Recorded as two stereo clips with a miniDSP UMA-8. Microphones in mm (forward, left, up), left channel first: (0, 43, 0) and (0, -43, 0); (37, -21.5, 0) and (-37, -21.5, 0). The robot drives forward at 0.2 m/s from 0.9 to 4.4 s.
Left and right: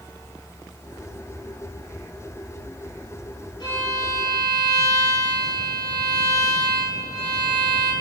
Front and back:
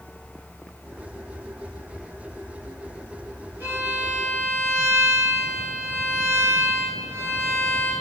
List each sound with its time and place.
3.6 s a violin: 115° left, 0.9 m; by 7.9 s 125° left, 1.0 m